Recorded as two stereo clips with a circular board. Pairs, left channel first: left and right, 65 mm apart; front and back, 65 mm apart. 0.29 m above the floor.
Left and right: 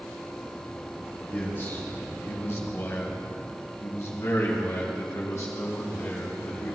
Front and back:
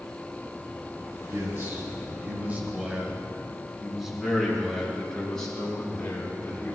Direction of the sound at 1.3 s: 140° left.